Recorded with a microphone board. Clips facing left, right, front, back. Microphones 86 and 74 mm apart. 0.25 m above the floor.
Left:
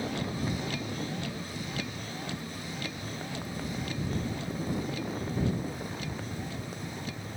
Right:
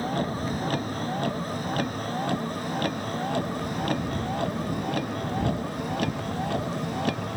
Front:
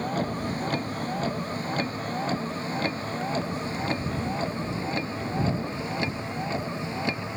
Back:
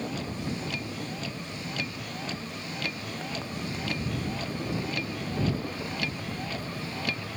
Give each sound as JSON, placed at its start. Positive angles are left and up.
{"t": 0.0, "sound": "a vehicle", "azimuth_deg": -45}